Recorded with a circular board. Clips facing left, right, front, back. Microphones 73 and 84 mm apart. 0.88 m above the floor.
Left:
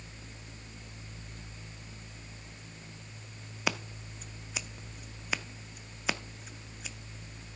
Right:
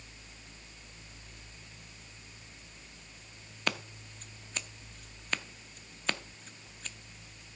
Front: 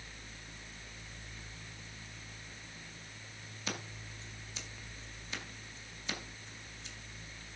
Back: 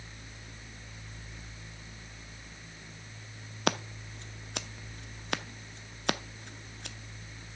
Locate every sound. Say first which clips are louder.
3.7 s scissors: left 1 dB, back 11 dB; 175° left, 0.6 m